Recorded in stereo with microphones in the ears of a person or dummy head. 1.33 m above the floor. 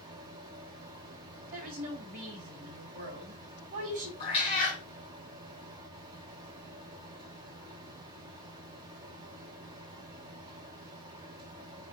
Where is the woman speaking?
45° right (ahead or behind), 2 m.